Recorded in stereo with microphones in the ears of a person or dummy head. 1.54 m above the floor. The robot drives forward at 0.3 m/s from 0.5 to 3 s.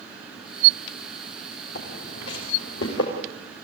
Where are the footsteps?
75° left (ahead or behind), 8 m; by 3.1 s 80° left, 8 m.